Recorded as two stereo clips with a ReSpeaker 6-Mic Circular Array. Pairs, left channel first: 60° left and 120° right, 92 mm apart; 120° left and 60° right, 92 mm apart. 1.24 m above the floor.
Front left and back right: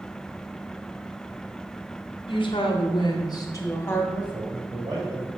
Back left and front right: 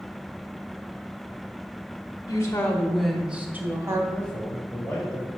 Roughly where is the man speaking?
Behind.